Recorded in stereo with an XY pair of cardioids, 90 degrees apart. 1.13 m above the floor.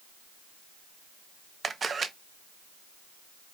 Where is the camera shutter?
40° right, 0.6 m.